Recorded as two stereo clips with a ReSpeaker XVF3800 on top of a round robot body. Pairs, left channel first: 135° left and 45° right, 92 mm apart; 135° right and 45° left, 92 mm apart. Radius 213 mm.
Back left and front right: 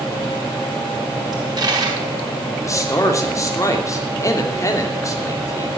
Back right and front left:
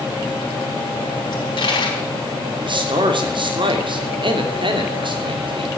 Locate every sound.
1.3 s a dropped coin: 95° right, 4 m
2.6 s a man speaking: 75° left, 3 m